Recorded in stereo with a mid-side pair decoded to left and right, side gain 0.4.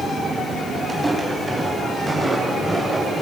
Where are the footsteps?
20° right, 9.5 m; by 3.2 s 30° right, 10 m.